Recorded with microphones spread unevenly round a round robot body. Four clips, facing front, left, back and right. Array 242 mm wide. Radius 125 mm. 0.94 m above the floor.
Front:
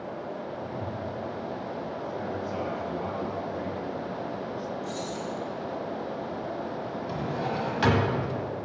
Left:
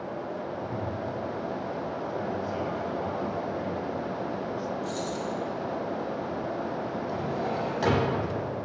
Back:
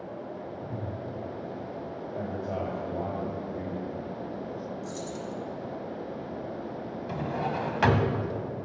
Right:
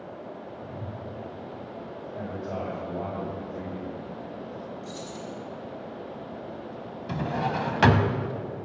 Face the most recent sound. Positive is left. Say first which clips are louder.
# right 5 dB, back 1 dB
turn(degrees=-90)